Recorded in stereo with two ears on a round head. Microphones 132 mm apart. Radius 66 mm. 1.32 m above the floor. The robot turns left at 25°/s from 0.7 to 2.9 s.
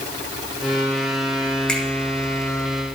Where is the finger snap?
5° left (ahead or behind), 2.5 m; by 1.8 s 10° left (ahead or behind), 2.5 m.